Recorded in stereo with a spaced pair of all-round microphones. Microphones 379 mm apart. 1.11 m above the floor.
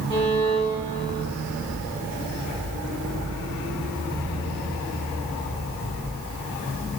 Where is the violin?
15° left (ahead or behind), 3.5 m.